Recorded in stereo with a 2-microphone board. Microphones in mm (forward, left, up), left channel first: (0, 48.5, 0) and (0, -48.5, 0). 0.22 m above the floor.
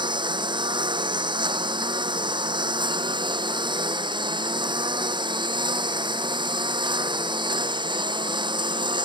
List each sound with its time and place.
0.0 s a lawn mower: 50° right (ahead or behind)